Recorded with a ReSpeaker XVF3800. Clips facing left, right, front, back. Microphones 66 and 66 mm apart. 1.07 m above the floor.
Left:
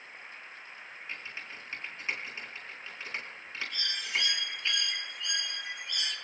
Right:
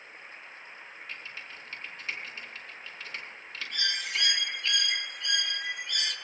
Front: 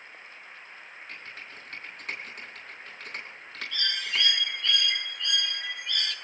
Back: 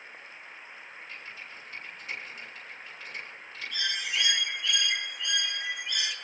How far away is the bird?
About 1.7 m.